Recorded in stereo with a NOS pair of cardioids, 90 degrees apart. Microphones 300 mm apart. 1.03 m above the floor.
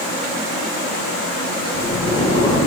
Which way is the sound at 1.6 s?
15° left.